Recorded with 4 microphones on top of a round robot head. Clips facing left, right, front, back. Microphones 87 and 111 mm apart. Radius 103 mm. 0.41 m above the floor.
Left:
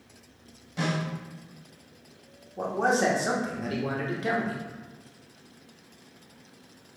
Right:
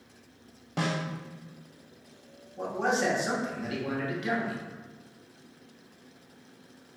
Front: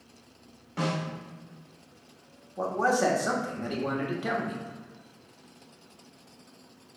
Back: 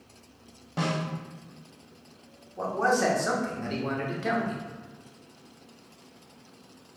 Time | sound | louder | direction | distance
0.8 | a snare drum | left 1 dB, back 1 dB | 115° right | 1.2 m
2.6 | a man speaking | left 3 dB, even | 75° left | 1.0 m